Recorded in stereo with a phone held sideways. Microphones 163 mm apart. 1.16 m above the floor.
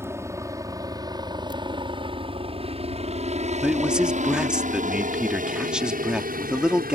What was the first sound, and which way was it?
A helicopter, 15° right (ahead or behind).